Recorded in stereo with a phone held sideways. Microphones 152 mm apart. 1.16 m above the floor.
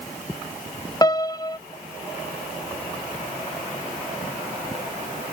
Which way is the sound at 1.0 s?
25° left (ahead or behind).